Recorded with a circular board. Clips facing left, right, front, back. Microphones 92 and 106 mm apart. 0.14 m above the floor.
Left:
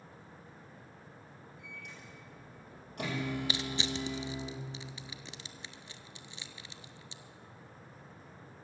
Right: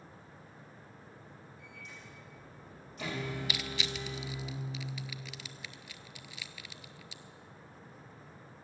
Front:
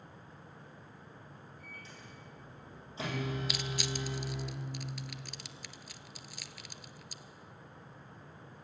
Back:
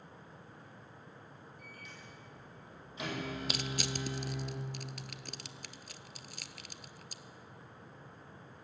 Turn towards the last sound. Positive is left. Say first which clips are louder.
# left 3 dB, even
turn(degrees=145)